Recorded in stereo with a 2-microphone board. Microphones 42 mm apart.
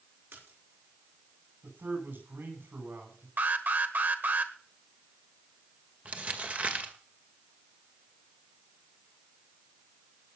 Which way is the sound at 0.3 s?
80° right.